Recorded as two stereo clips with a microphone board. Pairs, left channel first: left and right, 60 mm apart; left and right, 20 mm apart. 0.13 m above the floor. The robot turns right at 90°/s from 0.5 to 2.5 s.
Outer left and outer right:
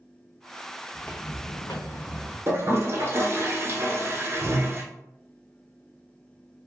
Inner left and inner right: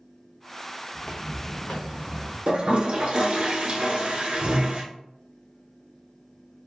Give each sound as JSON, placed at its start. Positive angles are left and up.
{"t": 0.9, "sound": "footsteps", "side_deg": 5, "distance_m": 0.8}
{"t": 2.5, "sound": "a toilet flushing", "side_deg": -40, "distance_m": 0.7}